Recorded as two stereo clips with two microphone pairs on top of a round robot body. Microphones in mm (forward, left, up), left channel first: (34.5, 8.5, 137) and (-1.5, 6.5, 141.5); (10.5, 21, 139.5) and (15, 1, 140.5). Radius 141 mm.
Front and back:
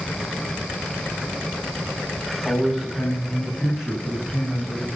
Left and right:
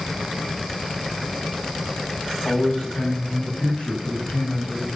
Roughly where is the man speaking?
Left.